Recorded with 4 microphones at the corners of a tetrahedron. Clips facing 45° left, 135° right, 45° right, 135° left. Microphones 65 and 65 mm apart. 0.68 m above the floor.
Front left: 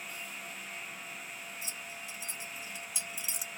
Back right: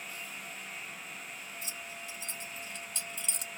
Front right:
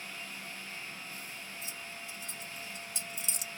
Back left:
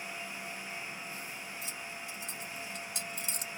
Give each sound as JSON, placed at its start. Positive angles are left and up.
{"t": 1.6, "sound": "keys jangling", "azimuth_deg": 125, "distance_m": 1.7}